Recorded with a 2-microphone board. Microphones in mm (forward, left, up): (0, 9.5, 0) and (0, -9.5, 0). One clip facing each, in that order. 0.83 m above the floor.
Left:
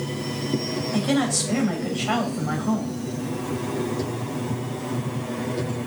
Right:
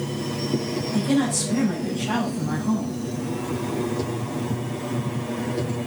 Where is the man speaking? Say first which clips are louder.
Right 1 dB; 45° left (ahead or behind), 3 m.